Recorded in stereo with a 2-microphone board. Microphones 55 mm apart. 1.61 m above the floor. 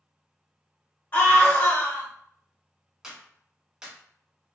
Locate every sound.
1.1 s a scream: 35° left (ahead or behind), 1.6 m
3.0 s a clap: 10° right (ahead or behind), 1.4 m